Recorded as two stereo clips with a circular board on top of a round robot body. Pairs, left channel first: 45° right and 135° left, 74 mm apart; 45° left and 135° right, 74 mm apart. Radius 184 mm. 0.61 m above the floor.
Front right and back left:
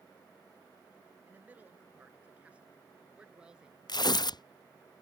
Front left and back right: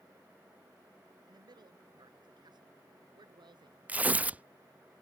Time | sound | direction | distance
1.3 | a man speaking | 160° right | ?
3.9 | tearing paper | 65° right | ?